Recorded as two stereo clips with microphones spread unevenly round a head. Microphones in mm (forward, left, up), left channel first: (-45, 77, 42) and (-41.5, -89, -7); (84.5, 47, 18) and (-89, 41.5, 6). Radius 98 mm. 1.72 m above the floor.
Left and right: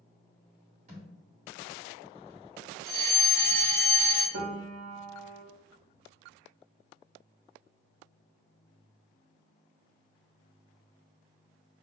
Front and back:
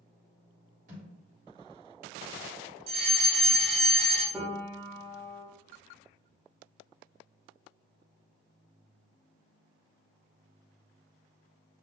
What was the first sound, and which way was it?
A thud, 140° right.